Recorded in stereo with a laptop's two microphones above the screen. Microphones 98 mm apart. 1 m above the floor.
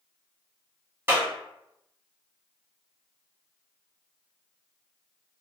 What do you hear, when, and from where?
1.1 s a clap: 20° right (ahead or behind), 1.6 m